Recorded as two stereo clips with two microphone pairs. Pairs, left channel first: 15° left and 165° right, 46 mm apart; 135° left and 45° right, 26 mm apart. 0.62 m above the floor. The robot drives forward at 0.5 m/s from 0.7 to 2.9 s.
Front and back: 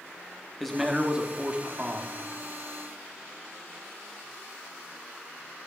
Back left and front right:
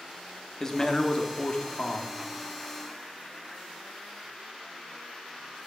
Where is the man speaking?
105° left, 0.6 m; by 2.2 s 160° left, 1.0 m.